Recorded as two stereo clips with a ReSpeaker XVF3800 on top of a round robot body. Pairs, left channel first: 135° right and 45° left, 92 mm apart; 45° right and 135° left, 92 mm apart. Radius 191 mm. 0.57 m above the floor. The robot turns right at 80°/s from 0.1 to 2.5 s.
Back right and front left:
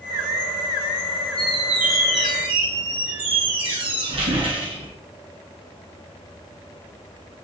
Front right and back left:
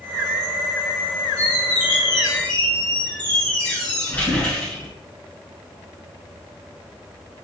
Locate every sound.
1.4 s a squeak: 60° right, 1.1 m; by 4.9 s 30° left, 1.1 m